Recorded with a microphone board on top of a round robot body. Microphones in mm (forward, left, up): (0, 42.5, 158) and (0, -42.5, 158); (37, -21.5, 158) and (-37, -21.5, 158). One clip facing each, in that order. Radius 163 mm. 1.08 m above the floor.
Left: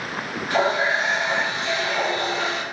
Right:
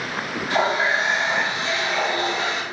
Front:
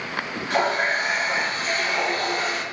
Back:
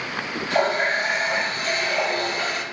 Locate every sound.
0.5 s a running tap: 55° left, 1.7 m